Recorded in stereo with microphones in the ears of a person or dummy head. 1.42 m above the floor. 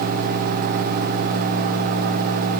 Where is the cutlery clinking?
I don't hear cutlery clinking.